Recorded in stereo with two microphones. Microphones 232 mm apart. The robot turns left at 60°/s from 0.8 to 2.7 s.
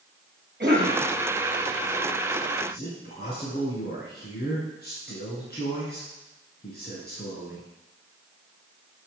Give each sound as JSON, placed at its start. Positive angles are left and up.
{"t": 0.6, "sound": "a cough", "side_deg": -50, "distance_m": 3.5}
{"t": 2.6, "sound": "a man speaking", "side_deg": 50, "distance_m": 2.0}